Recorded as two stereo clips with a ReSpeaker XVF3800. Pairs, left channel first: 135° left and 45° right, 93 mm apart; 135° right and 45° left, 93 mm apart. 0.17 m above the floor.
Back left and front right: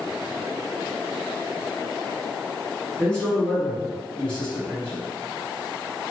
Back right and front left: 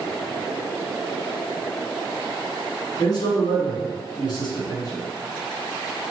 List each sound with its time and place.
3.0 s a man speaking: 150° right, 1.8 m